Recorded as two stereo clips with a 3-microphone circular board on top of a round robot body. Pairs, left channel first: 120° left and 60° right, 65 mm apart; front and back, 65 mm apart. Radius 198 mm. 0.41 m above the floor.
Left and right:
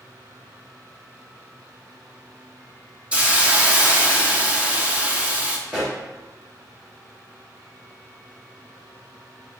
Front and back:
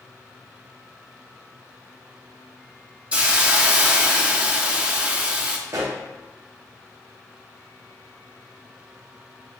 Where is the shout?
No shout in this recording.